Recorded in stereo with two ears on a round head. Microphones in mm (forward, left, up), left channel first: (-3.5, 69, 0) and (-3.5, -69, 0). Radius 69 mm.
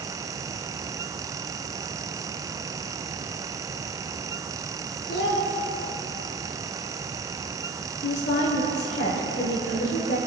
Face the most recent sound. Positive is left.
turn(degrees=80)